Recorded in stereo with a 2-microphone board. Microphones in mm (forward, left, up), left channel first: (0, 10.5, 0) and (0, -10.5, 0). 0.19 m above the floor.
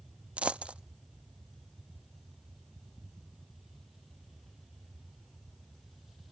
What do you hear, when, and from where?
0.4 s a dropped coin: 75° right (ahead or behind), 0.5 m